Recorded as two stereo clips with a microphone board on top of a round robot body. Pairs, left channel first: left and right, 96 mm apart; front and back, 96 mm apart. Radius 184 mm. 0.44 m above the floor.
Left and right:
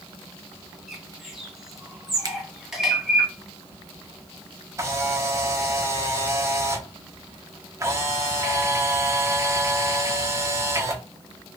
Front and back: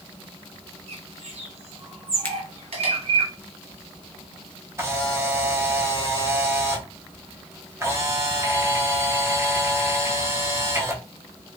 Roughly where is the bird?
Behind.